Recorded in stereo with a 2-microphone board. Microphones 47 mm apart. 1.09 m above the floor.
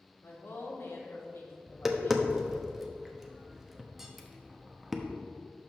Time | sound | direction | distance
0.2 | a woman speaking | 75° left (ahead or behind) | 2 m
1.7 | tapping | 5° right (ahead or behind) | 0.8 m